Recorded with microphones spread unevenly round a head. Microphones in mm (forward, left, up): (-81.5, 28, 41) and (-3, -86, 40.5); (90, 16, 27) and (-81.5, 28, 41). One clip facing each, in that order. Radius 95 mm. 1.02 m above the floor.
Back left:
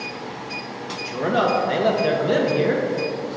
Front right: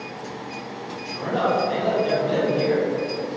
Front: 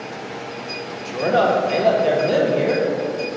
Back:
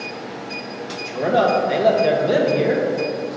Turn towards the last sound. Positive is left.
turn(degrees=90)